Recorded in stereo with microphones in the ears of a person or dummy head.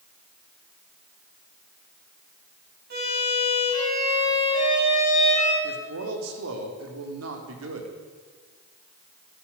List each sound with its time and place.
2.9 s a violin: 50° right (ahead or behind), 6 m
5.6 s a man speaking: 75° right (ahead or behind), 3 m